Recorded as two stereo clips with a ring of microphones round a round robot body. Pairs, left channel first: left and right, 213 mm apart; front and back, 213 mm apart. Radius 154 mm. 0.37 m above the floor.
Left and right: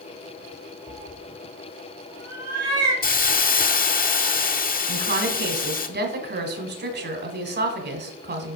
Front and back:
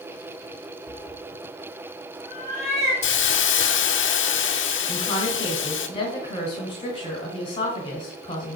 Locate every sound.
0.9 s a cat meowing: 135° right, 0.6 m; by 2.9 s 120° right, 3 m
3.0 s a hiss: 35° left, 0.6 m
4.9 s a woman speaking: 65° right, 1.3 m